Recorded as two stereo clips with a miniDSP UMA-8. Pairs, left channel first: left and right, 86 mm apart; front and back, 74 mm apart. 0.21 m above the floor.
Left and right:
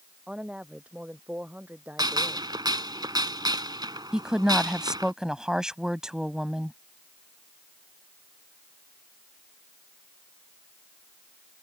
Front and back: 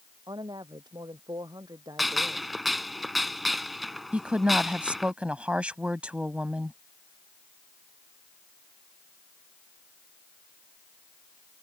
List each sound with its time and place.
0.3 s a woman speaking: 170° right; by 2.5 s 155° right
2.0 s a gunshot: 90° right
4.1 s a woman speaking: 150° right